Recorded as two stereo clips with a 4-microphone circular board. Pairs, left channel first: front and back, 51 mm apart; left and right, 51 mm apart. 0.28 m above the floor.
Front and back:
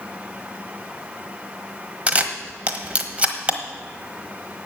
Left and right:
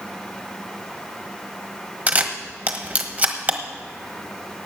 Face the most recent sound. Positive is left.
turn(degrees=-135)